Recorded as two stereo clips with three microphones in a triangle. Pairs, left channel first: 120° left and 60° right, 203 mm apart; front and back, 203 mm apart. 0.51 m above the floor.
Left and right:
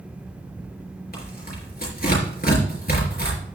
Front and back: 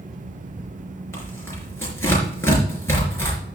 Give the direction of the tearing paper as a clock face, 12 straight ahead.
9 o'clock.